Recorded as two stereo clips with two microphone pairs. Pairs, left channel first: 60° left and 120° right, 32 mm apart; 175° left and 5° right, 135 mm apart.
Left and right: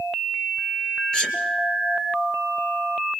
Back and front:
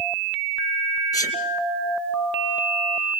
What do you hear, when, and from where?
1.1 s a sneeze: 115° left, 2.5 m